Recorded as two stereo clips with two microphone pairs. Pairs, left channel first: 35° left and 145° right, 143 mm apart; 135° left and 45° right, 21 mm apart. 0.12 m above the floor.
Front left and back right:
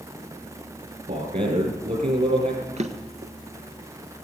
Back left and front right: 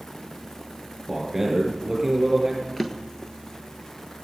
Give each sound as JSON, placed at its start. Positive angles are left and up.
{"t": 1.1, "sound": "a man speaking", "azimuth_deg": -115, "distance_m": 7.0}
{"t": 2.8, "sound": "a drawer", "azimuth_deg": -145, "distance_m": 1.2}